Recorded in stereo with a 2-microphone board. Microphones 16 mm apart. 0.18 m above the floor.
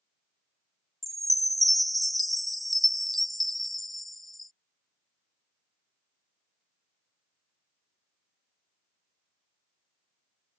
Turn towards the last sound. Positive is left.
turn(degrees=10)  # may be behind; listen again after turning